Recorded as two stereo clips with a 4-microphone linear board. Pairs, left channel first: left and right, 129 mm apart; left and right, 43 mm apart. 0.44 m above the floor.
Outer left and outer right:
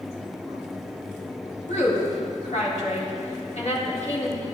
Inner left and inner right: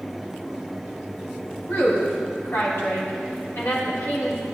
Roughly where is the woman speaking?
Left.